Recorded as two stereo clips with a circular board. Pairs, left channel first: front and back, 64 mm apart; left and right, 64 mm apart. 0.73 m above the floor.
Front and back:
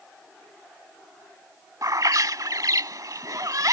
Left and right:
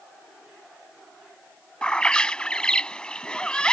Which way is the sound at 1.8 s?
165° left.